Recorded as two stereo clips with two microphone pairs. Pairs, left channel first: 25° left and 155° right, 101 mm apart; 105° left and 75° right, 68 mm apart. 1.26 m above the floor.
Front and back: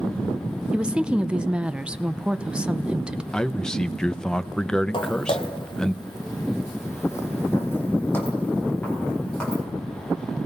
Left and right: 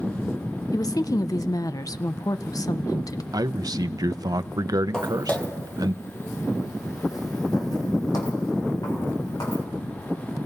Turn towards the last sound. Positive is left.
turn(degrees=105)